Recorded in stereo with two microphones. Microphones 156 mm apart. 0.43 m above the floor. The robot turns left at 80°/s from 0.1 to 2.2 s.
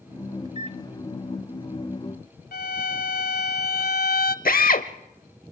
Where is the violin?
85° left, 0.6 m.